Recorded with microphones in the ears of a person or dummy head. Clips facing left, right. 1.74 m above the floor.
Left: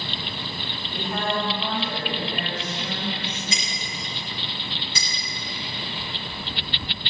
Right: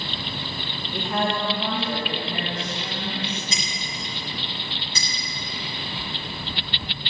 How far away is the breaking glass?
About 4 m.